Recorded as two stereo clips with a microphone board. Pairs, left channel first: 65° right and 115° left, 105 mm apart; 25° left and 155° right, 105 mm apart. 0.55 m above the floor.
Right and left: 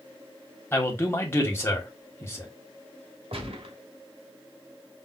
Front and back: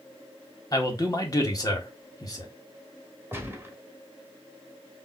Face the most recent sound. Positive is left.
turn(degrees=135)